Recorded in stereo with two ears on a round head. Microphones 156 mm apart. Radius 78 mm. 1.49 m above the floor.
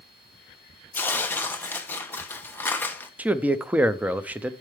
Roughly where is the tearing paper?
Centre.